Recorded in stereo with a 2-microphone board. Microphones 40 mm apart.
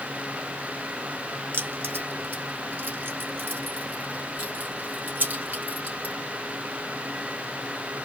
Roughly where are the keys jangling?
Right.